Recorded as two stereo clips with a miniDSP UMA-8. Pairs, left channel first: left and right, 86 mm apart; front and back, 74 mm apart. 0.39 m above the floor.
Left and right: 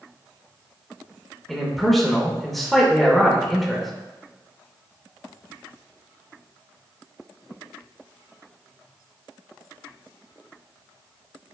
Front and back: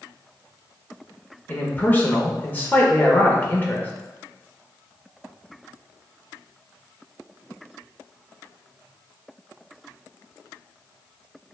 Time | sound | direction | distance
1.5 | a man speaking | 5° left | 0.8 m